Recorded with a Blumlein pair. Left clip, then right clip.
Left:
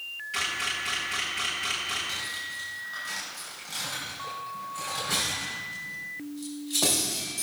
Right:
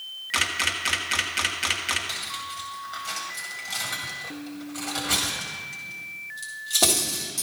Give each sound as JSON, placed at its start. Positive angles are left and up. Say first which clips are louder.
{"t": 0.3, "sound": "a camera shutter", "louder": "right 5 dB", "azimuth_deg": -60, "distance_m": 1.4}
{"t": 2.1, "sound": "cutlery clinking", "louder": "right 1 dB", "azimuth_deg": -70, "distance_m": 3.0}